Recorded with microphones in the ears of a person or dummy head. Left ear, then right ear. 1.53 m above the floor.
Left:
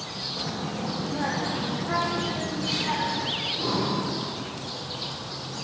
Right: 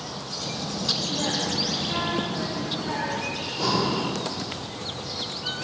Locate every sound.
0.4 s a child speaking: 75° left (ahead or behind), 1.7 m; by 3.3 s 40° left (ahead or behind), 4 m
3.4 s breathing: 45° right (ahead or behind), 3 m